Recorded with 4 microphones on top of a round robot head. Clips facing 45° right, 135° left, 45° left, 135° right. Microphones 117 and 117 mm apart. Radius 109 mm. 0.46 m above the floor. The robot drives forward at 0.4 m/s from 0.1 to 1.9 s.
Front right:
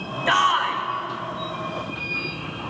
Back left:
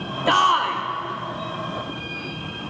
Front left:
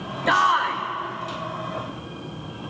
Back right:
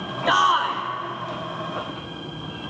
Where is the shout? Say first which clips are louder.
Back left 2 dB, even; 145° left, 1.0 m; by 0.8 s 160° left, 1.1 m.